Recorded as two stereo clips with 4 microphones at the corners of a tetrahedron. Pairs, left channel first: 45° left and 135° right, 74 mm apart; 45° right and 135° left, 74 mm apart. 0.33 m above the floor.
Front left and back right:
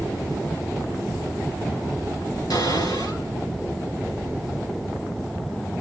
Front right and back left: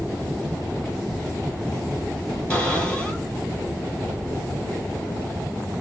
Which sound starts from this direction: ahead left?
A cupboard door, at 2.5 s.